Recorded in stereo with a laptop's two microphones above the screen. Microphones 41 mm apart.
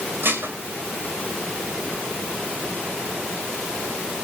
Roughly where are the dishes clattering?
Right.